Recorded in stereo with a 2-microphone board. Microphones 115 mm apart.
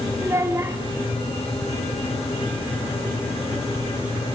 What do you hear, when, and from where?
0.2 s a child speaking: 25° right (ahead or behind), 2.5 m